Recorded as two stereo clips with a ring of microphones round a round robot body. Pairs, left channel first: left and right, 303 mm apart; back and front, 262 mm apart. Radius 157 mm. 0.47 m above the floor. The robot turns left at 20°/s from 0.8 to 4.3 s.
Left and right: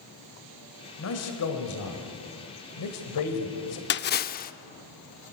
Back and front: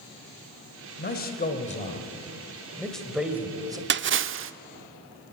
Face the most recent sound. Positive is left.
turn(degrees=35)